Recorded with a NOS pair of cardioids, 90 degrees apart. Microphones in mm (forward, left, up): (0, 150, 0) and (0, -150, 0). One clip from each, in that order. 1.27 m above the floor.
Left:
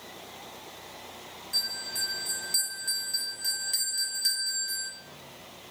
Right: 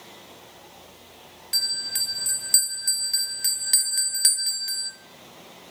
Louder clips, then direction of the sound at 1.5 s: Right 5 dB; 55° right.